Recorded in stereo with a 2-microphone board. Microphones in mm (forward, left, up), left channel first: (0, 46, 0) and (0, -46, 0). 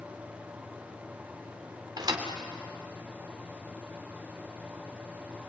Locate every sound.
2.0 s a thud: 50° right (ahead or behind), 2.5 m